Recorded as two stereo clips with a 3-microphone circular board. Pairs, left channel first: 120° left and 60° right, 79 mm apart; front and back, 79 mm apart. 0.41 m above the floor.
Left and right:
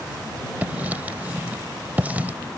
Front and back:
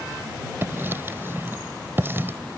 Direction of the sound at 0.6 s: 125° right.